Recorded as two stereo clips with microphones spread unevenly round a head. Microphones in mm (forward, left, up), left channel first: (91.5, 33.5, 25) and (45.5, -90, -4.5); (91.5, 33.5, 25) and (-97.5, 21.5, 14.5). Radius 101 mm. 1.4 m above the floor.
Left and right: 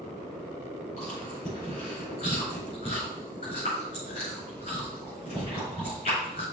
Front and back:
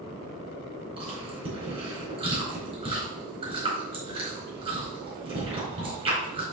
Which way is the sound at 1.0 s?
120° left.